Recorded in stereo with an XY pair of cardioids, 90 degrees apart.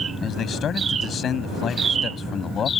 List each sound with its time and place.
0.2 s a man speaking: 65° left; by 2.7 s 55° left